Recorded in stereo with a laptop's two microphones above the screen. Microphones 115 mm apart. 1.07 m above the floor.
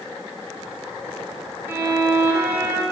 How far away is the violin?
About 2.5 m.